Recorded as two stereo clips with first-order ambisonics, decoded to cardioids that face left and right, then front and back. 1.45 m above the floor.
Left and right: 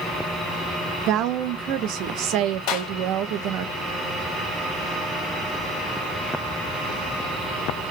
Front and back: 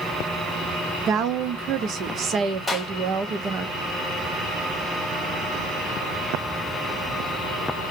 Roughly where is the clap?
Left.